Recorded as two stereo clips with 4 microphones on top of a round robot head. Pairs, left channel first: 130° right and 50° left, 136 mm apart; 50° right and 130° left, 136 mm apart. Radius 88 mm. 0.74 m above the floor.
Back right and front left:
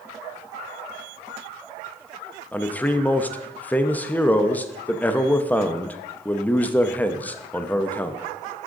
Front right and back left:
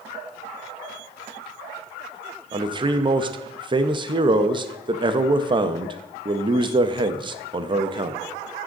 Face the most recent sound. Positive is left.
turn(degrees=160)